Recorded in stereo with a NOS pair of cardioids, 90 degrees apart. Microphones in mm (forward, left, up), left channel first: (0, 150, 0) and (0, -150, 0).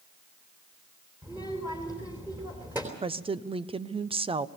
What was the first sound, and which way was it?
A child speaking, 5° right.